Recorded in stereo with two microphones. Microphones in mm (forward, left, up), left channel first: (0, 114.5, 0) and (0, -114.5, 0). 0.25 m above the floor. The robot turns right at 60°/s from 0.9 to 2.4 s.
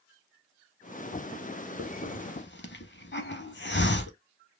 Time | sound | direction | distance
1.8 | a hiss | 65° left (ahead or behind) | 0.6 m